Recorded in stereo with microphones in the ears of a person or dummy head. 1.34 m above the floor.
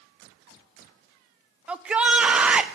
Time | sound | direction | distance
1.7 | a shout | 10° right (ahead or behind) | 0.6 m